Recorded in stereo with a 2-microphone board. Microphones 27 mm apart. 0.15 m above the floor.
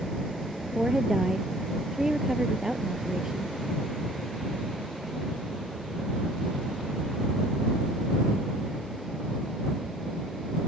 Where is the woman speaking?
20° right (ahead or behind).